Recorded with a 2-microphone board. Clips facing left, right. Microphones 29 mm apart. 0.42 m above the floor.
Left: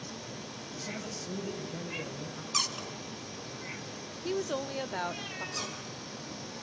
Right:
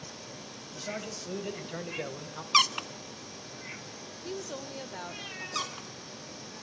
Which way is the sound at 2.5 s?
50° right (ahead or behind).